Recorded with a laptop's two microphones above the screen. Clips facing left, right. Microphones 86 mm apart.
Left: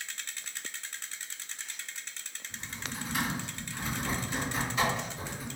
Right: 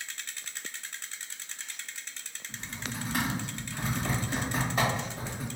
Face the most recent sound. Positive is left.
turn(degrees=-45)  # may be behind; listen again after turning